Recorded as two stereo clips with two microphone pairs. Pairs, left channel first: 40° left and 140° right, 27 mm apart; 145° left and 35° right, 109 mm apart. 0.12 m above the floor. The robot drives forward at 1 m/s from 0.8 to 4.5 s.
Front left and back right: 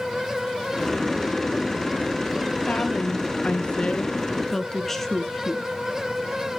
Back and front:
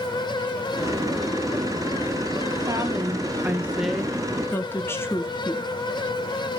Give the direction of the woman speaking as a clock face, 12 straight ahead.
11 o'clock.